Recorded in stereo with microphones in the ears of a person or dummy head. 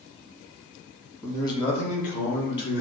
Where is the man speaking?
15° left (ahead or behind), 1.2 m; by 2.8 s 65° left (ahead or behind), 1.6 m.